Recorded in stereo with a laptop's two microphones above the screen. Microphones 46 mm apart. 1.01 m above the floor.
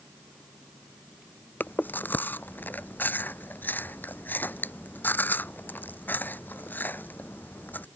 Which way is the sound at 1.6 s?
40° left (ahead or behind).